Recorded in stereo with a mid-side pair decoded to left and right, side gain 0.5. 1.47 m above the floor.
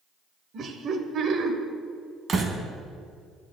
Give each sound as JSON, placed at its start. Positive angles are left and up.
{"t": 0.5, "sound": "laughter", "azimuth_deg": -55, "distance_m": 1.0}
{"t": 2.3, "sound": "a door slam", "azimuth_deg": -45, "distance_m": 1.1}